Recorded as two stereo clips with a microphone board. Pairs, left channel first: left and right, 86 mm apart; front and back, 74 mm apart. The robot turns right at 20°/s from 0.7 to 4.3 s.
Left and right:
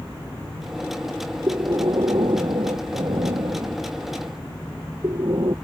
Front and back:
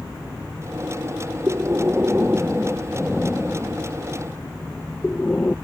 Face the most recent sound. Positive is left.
turn(degrees=-70)